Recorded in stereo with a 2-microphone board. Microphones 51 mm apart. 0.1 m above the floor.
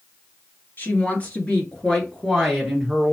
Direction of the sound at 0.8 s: 35° left (ahead or behind).